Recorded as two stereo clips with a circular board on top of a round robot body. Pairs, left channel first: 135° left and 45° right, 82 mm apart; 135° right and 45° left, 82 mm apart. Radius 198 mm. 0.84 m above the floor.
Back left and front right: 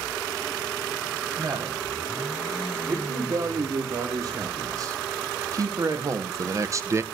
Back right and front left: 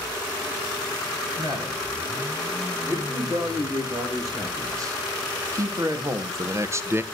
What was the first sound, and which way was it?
A man speaking, straight ahead.